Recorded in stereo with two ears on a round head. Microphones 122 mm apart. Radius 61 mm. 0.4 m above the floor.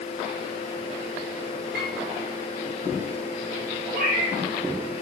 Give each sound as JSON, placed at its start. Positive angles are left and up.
{"t": 1.7, "sound": "a piano", "side_deg": -80, "distance_m": 7.0}
{"t": 3.9, "sound": "a cat meowing", "side_deg": -70, "distance_m": 6.0}